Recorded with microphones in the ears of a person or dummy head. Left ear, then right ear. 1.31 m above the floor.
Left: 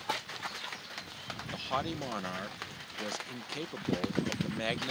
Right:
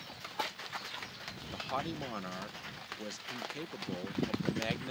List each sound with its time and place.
1.5 s a man speaking: 5° left (ahead or behind)